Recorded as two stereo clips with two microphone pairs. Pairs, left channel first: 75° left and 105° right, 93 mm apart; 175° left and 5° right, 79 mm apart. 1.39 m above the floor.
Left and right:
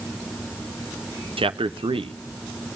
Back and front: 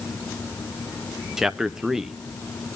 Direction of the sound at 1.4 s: 95° right.